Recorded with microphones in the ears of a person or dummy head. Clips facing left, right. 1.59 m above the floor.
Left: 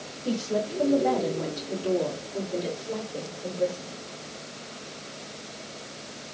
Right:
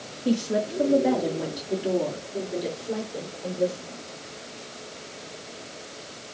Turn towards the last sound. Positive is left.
turn(degrees=-15)  # may be behind; listen again after turning